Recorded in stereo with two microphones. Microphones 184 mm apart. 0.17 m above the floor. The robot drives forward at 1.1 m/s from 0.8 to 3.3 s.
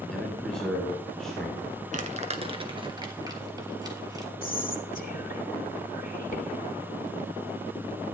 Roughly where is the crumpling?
Right.